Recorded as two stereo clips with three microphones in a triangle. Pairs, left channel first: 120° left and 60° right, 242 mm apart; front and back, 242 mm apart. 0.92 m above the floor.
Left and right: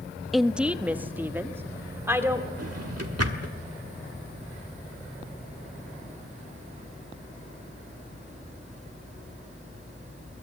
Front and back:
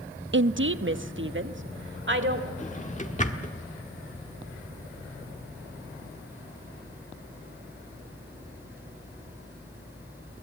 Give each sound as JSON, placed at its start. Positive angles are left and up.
{"t": 0.3, "sound": "a woman speaking", "azimuth_deg": -150, "distance_m": 0.5}
{"t": 2.6, "sound": "a drawer", "azimuth_deg": -60, "distance_m": 1.5}